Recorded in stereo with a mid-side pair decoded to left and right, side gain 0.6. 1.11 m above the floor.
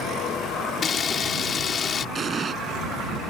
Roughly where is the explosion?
Ahead right.